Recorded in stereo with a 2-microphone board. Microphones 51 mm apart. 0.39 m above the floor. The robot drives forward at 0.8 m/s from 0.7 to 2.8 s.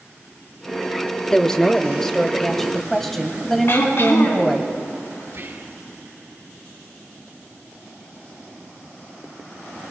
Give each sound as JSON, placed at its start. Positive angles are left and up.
{"t": 1.3, "sound": "a woman speaking", "side_deg": 10, "distance_m": 0.9}
{"t": 3.7, "sound": "throat clearing", "side_deg": 55, "distance_m": 3.5}
{"t": 5.3, "sound": "whispering", "side_deg": -55, "distance_m": 2.5}